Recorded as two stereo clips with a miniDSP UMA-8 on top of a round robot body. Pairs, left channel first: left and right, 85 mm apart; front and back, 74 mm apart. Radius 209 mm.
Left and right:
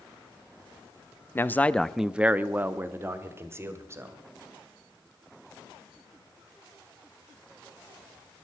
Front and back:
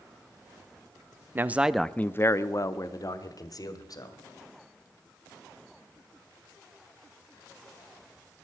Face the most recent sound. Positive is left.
turn(degrees=-35)